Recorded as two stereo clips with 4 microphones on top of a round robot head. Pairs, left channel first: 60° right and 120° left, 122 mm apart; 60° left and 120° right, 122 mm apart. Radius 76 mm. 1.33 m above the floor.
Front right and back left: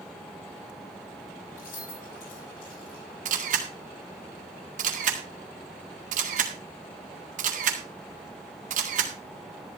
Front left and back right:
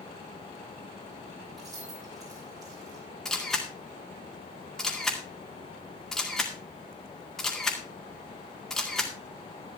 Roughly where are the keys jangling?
Ahead right.